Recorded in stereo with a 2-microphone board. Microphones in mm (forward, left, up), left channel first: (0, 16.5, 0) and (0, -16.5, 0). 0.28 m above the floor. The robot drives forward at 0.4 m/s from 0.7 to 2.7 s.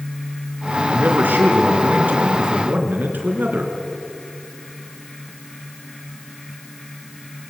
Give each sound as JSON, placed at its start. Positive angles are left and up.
{"t": 0.9, "sound": "a man speaking", "side_deg": -70, "distance_m": 4.0}